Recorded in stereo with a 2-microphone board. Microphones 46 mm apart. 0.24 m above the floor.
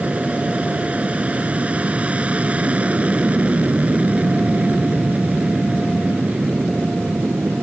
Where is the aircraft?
30° right (ahead or behind).